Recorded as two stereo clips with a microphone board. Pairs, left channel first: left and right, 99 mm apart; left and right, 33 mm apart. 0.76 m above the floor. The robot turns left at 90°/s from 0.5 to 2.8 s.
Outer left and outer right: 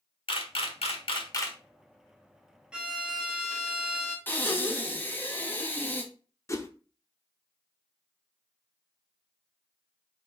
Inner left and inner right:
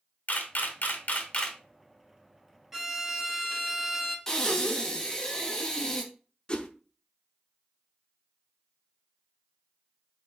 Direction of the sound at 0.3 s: 65° left (ahead or behind).